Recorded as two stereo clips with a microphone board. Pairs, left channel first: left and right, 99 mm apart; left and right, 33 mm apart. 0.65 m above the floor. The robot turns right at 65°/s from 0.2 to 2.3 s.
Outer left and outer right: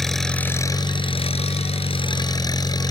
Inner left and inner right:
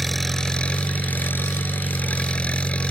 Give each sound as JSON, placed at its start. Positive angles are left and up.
{"t": 0.0, "sound": "an engine running", "azimuth_deg": 5}